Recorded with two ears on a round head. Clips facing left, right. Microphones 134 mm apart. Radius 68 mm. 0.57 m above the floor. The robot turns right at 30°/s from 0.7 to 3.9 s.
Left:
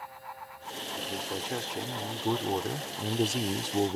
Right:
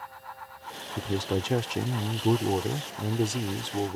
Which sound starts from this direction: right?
A man speaking, at 1.0 s.